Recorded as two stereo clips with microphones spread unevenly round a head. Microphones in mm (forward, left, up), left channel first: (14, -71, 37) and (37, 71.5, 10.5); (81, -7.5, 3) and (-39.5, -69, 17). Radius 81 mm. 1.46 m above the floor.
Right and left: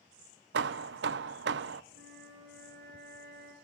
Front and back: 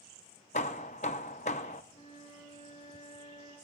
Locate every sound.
0.5 s hammering: 80° left, 0.6 m
1.9 s a flute: 85° left, 4.5 m